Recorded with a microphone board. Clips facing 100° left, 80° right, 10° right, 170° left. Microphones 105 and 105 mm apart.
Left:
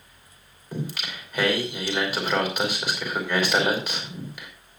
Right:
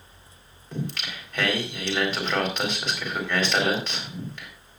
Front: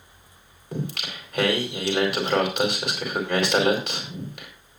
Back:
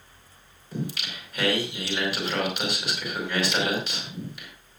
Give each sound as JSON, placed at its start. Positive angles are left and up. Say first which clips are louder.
{"t": 0.7, "sound": "singing", "louder": "even, front 1 dB", "azimuth_deg": 20, "distance_m": 4.5}